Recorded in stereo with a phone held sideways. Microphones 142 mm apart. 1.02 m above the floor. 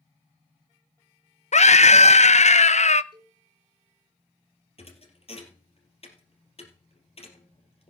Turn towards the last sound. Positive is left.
turn(degrees=50)  # may be behind; listen again after turning